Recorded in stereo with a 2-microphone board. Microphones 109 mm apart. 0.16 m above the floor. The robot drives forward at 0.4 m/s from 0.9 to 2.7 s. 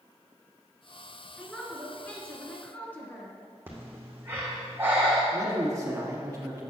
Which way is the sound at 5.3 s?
30° right (ahead or behind).